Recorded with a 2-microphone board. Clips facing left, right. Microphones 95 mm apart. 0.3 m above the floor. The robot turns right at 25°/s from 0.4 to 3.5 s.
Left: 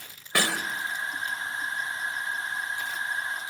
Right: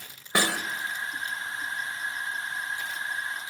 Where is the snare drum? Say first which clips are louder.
Right 1 dB; 20° right (ahead or behind), 1.6 m.